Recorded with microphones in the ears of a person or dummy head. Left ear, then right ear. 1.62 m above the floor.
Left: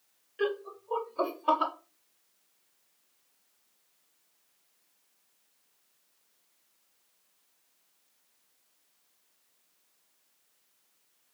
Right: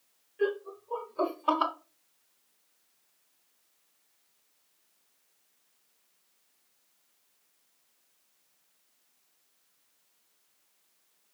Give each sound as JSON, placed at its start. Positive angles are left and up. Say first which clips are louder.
{"t": 0.4, "sound": "laughter", "louder": "right 1 dB", "side_deg": 40, "distance_m": 1.1}